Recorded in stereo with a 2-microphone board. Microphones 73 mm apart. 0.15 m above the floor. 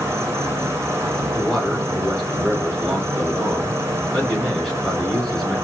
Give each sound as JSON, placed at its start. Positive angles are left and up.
{"t": 0.0, "sound": "an insect", "side_deg": -40, "distance_m": 0.7}
{"t": 1.3, "sound": "a man speaking", "side_deg": 10, "distance_m": 1.5}